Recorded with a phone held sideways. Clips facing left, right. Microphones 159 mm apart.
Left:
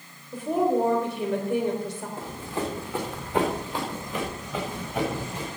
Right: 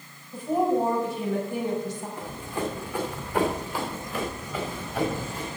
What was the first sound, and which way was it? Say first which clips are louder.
A woman speaking: even; 75° left (ahead or behind).